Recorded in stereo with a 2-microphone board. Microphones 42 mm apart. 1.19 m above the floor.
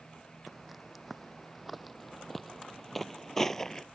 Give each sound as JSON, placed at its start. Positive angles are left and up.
{"t": 0.5, "sound": "footsteps", "side_deg": 0}